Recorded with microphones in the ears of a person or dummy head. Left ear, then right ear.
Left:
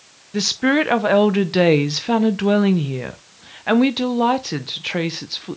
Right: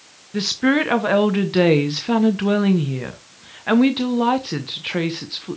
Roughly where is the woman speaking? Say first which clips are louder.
Left 1 dB; centre.